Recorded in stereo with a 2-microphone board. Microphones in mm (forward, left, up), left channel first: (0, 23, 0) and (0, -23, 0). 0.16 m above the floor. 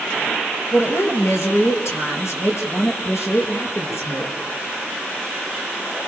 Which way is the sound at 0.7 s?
65° left (ahead or behind).